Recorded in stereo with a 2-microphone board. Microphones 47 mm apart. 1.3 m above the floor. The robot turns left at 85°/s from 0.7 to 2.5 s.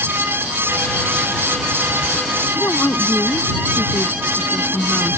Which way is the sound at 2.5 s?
55° left (ahead or behind).